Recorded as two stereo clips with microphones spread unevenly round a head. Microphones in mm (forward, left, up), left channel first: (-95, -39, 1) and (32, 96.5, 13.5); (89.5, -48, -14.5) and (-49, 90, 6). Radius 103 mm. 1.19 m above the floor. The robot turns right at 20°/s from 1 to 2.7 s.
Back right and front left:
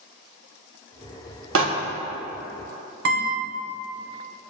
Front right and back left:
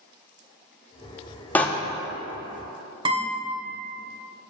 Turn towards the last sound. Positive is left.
turn(degrees=70)